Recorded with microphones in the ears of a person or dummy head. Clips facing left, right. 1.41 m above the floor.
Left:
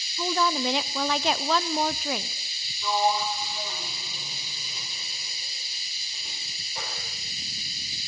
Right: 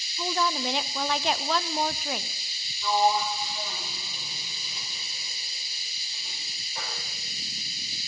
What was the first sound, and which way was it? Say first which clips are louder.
A woman speaking: left 2 dB; 70° left (ahead or behind).